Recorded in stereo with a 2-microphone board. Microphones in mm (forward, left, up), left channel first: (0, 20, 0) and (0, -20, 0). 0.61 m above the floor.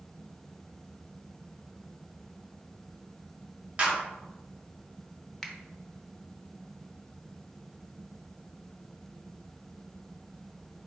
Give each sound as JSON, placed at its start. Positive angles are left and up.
{"t": 3.8, "sound": "a clap", "side_deg": -30, "distance_m": 1.5}
{"t": 5.4, "sound": "a finger snap", "side_deg": 5, "distance_m": 0.7}